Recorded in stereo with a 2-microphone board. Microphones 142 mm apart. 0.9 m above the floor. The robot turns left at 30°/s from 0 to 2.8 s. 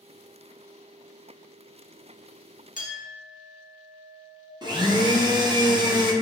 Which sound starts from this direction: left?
A clink, at 2.8 s.